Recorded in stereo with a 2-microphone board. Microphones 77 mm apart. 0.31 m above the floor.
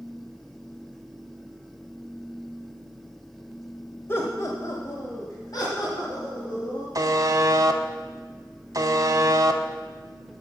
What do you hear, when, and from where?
4.1 s laughter: 30° left (ahead or behind), 1.0 m; by 6.8 s 60° left (ahead or behind), 3 m
7.0 s a buzzer: 50° right (ahead or behind), 0.6 m